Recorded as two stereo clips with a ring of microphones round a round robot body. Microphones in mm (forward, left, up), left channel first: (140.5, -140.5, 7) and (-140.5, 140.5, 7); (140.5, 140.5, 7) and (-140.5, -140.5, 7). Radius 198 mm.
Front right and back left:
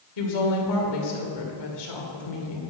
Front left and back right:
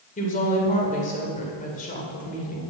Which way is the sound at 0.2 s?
25° right.